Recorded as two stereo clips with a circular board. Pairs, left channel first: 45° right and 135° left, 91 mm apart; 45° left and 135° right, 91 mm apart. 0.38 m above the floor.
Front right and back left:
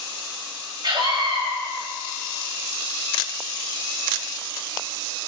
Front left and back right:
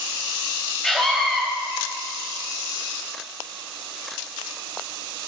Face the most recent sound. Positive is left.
turn(degrees=130)